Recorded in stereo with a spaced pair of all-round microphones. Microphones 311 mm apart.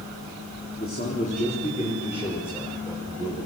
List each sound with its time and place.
0.8 s a man speaking: 30° left (ahead or behind), 3 m; by 3.5 s 15° left (ahead or behind), 6.5 m